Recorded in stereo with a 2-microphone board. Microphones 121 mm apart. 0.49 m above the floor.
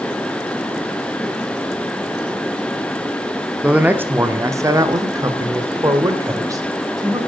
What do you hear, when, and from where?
3.6 s a man speaking: 10° right (ahead or behind), 0.8 m; by 7.2 s 25° right (ahead or behind), 2 m